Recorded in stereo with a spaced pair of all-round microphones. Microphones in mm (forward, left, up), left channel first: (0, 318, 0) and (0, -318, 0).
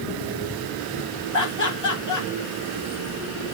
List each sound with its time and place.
1.3 s laughter: 30° left (ahead or behind), 2.5 m